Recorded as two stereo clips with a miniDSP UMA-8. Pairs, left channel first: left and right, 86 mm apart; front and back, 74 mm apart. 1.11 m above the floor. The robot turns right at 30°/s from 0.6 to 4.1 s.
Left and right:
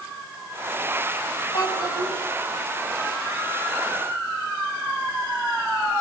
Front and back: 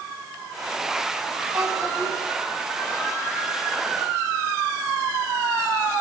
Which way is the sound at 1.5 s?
125° left.